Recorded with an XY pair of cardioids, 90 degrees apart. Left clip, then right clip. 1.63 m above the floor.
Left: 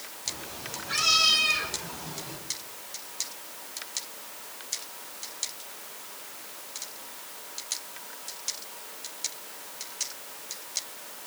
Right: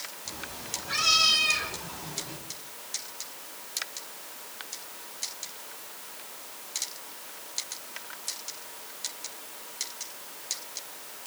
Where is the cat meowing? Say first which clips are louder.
Left 4 dB; 15° right, 4.5 m; by 2.4 s 5° left, 4.5 m.